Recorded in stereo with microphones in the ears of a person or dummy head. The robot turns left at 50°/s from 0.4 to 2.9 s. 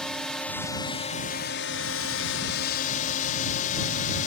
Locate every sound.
0.0 s a drone: 175° left; by 4.3 s 50° left